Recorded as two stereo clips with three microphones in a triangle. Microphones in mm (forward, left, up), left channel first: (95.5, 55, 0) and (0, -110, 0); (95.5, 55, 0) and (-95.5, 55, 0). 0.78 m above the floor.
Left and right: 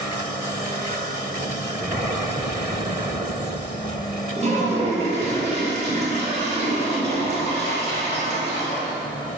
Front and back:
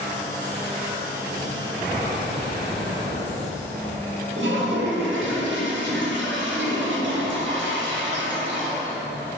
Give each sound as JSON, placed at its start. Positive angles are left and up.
{"t": 4.4, "sound": "a toilet flushing", "azimuth_deg": -175, "distance_m": 0.9}